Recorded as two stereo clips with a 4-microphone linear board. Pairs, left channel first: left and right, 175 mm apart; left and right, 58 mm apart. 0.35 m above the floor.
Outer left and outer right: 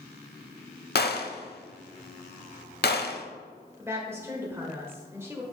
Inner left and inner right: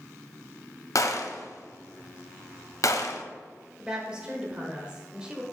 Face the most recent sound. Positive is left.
turn(degrees=-15)  # may be behind; listen again after turning